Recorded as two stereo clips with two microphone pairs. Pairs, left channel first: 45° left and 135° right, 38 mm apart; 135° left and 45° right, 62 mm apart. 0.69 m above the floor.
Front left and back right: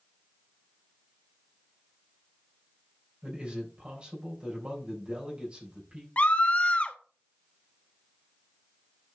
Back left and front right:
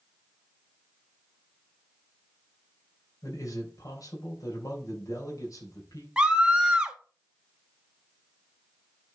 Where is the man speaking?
160° left, 3 m.